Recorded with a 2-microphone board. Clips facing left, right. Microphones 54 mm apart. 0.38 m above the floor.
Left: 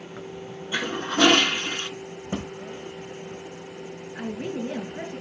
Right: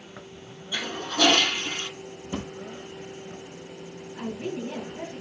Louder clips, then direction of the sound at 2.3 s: Left 2 dB; 45° left (ahead or behind).